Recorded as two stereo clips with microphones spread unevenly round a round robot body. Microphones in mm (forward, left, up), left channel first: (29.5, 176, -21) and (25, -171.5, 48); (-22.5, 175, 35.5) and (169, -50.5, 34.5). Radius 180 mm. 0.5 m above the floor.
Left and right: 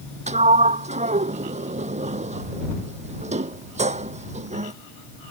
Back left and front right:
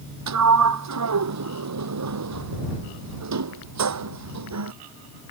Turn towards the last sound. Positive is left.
turn(degrees=-20)